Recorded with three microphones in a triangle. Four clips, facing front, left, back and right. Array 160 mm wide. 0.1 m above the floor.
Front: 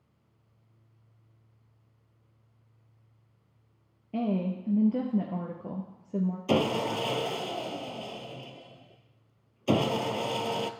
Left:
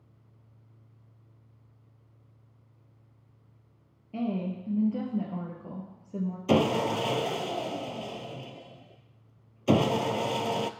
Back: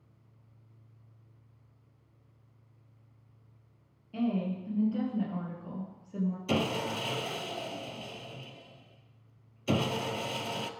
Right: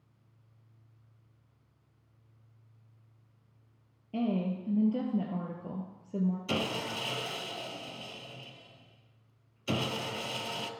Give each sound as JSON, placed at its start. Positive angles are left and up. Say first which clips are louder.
{"t": 4.1, "sound": "a woman speaking", "louder": "even, front 2 dB", "azimuth_deg": -10, "distance_m": 1.8}
{"t": 6.5, "sound": "sawing", "louder": "left 10 dB, front 6 dB", "azimuth_deg": 60, "distance_m": 0.7}